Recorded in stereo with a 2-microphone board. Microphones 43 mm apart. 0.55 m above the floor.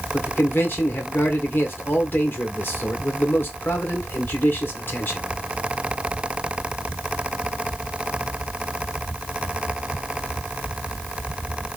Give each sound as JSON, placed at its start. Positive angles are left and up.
{"t": 0.1, "sound": "a man speaking", "side_deg": 55, "distance_m": 1.4}